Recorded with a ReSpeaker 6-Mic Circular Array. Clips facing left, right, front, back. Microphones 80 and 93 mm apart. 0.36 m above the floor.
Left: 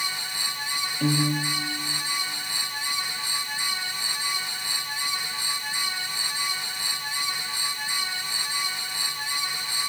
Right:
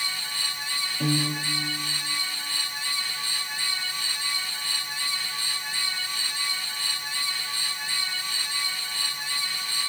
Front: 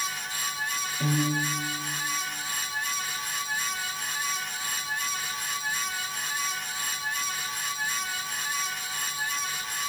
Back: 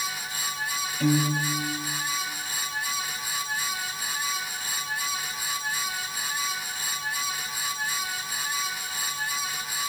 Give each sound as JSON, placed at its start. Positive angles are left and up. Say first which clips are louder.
{"t": 1.0, "sound": "a piano", "louder": "left 3 dB, back 3 dB", "azimuth_deg": -80, "distance_m": 7.0}